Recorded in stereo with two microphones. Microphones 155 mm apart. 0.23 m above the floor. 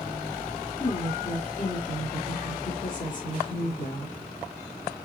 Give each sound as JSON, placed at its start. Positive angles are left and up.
{"t": 0.8, "sound": "a woman speaking", "side_deg": 55, "distance_m": 4.5}